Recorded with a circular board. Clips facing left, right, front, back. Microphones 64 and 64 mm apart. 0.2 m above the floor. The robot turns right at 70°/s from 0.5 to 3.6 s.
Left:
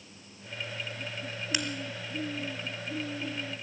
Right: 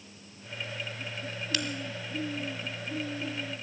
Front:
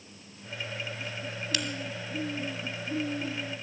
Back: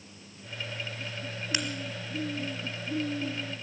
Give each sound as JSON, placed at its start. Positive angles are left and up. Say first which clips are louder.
{"t": 1.5, "sound": "a crack", "louder": "even, back 1 dB", "azimuth_deg": 140, "distance_m": 1.2}